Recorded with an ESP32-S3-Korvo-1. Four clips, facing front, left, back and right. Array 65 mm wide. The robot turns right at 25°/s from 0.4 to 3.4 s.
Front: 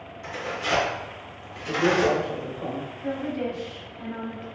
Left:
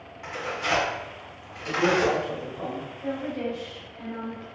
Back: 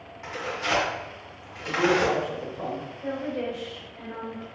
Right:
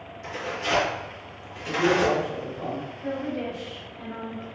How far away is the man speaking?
About 1.4 m.